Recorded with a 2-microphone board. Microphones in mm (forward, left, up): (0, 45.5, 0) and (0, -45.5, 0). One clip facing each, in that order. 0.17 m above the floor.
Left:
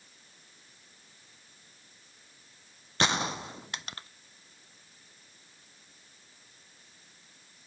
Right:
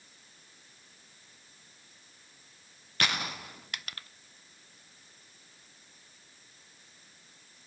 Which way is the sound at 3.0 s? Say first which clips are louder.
Left 4 dB; 25° left (ahead or behind).